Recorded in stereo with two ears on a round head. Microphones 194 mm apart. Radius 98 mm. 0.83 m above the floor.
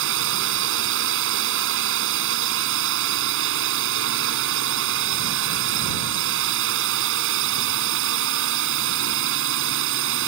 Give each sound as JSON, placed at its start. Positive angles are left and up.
{"t": 0.0, "sound": "a drone", "side_deg": -65}